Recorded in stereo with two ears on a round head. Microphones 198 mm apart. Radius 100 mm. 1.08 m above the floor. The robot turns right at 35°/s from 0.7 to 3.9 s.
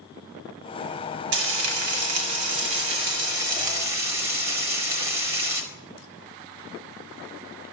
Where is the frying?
120° right, 1.3 m; by 5.6 s 30° right, 1.3 m.